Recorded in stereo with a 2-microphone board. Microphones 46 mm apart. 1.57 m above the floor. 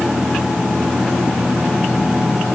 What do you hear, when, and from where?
Only background noise.